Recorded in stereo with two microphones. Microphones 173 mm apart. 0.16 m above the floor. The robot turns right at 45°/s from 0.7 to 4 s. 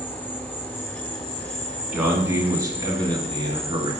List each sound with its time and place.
0.0 s an insect: 10° left, 0.8 m; by 4.0 s 160° left, 0.8 m
1.9 s a man speaking: 5° right (ahead or behind), 1.6 m; by 3.9 s 30° right (ahead or behind), 1.6 m